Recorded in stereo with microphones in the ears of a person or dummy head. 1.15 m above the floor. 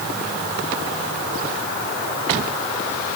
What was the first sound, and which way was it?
Only background noise.